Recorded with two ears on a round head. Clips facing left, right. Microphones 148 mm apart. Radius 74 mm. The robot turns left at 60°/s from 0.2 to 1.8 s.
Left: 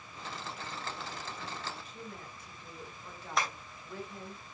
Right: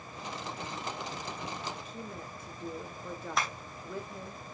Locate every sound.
1.9 s a woman speaking: 75° right (ahead or behind), 2.5 m
3.4 s tapping: centre (ahead or behind), 2.5 m